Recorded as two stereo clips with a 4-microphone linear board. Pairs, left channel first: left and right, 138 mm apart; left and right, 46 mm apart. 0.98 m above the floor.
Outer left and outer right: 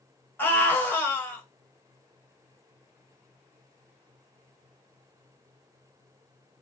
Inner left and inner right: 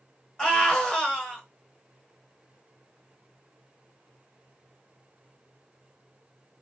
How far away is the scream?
About 1.3 m.